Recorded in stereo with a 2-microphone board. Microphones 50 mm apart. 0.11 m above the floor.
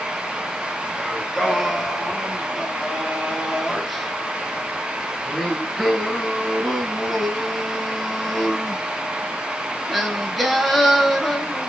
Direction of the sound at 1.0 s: Centre (ahead or behind).